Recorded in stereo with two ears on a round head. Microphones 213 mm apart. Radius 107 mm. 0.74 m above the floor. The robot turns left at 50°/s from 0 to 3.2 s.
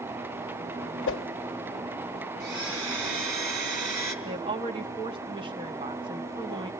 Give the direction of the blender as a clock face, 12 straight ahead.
2 o'clock.